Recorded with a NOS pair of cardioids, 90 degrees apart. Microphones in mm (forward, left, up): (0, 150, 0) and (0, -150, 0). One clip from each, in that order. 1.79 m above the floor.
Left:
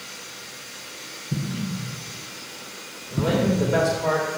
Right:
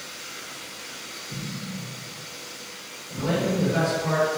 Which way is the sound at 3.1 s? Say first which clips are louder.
Left 3 dB; 55° left.